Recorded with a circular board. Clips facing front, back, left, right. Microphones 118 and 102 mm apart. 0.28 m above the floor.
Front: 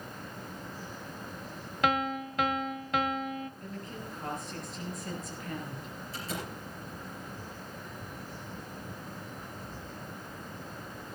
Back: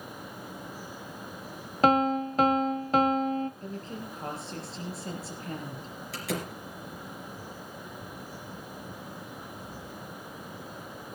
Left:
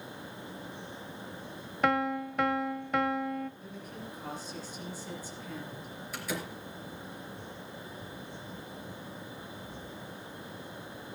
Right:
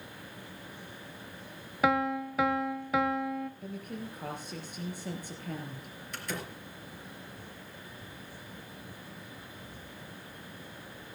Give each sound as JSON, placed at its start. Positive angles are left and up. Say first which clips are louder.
{"t": 1.8, "sound": "a piano", "louder": "back 7 dB, right 1 dB", "azimuth_deg": -175, "distance_m": 0.6}
{"t": 3.6, "sound": "a woman speaking", "louder": "back 3 dB, right 3 dB", "azimuth_deg": -120, "distance_m": 4.5}
{"t": 6.1, "sound": "a door slam", "louder": "back 5 dB, left 2 dB", "azimuth_deg": 175, "distance_m": 4.0}